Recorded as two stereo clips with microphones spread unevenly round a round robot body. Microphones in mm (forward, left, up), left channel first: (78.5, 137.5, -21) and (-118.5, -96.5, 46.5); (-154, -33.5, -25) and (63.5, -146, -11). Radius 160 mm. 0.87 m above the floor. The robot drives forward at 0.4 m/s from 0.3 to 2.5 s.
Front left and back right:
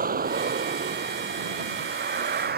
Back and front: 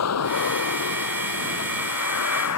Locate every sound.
0.0 s a vehicle: 170° left